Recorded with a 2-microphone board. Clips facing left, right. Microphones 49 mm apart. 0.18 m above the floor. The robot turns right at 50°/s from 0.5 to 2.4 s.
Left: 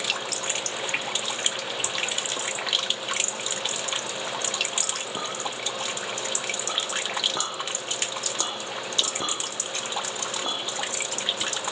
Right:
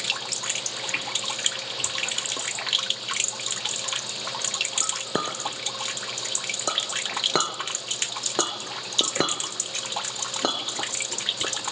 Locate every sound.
4.8 s a clink: 65° right (ahead or behind), 1.7 m